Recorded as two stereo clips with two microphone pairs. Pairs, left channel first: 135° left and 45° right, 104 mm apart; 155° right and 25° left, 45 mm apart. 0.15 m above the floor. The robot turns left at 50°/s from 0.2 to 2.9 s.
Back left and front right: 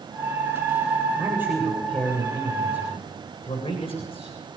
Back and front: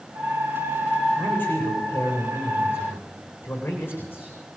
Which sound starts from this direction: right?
A man speaking, at 1.2 s.